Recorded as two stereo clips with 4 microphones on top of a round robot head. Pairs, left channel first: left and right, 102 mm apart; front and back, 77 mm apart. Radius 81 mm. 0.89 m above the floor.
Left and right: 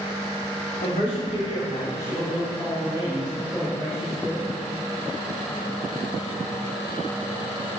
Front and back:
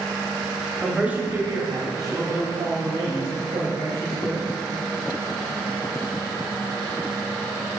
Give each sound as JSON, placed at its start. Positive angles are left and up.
{"t": 0.8, "sound": "a man speaking", "azimuth_deg": 95, "distance_m": 1.2}